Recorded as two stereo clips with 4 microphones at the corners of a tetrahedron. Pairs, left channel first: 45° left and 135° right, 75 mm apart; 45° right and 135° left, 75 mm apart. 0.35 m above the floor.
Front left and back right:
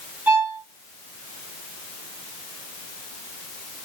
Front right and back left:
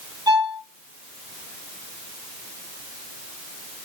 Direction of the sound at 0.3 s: 160° left.